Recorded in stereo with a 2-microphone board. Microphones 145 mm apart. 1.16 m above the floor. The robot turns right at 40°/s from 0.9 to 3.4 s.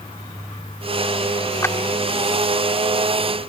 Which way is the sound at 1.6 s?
20° left (ahead or behind).